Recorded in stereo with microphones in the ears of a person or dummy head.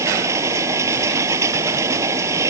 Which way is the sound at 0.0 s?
15° right (ahead or behind).